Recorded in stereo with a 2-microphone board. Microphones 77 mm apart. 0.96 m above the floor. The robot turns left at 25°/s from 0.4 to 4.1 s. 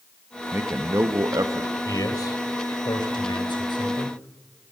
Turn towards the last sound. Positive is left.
turn(degrees=75)